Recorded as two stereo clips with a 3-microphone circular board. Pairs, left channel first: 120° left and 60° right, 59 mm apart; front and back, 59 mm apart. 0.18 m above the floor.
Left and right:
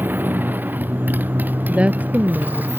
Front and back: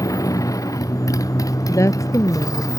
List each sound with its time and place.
0.0 s a motorcycle: 5° right; by 2.8 s straight ahead
1.7 s a woman speaking: 5° left